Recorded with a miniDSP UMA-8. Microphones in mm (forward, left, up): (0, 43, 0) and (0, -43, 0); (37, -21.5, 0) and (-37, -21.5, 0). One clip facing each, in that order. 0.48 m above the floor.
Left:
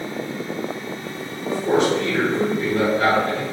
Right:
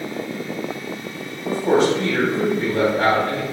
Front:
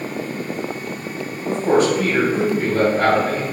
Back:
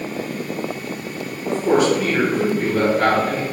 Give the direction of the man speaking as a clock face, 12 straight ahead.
1 o'clock.